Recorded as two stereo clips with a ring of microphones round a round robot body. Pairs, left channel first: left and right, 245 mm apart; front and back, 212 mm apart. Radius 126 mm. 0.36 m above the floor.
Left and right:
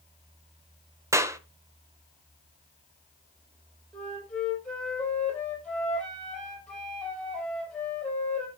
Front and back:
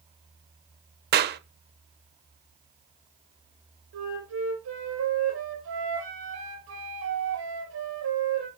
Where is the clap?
165° right, 0.8 m.